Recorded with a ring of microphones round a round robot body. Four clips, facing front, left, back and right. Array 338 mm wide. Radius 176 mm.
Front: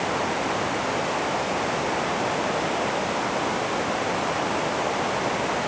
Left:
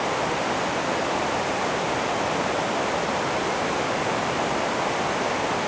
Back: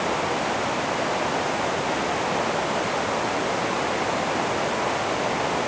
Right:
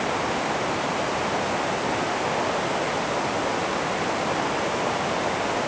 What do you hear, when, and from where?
Only background noise.